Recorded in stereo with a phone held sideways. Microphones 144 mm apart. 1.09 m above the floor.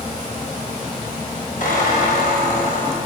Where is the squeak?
75° left (ahead or behind), 4 m.